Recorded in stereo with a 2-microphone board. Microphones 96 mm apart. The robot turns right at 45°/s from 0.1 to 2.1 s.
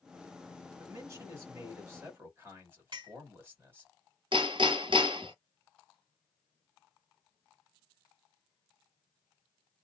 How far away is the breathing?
No breathing in this recording.